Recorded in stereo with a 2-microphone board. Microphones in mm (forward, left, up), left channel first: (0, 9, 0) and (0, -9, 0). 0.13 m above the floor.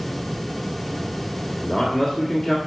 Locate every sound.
1.6 s a man speaking: 5° left (ahead or behind), 1.5 m